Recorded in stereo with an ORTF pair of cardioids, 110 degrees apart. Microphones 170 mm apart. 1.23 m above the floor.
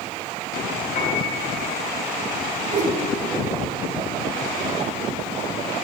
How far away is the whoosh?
About 2 m.